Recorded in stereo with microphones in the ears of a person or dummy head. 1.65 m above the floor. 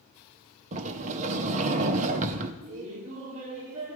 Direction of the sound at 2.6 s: 40° right (ahead or behind).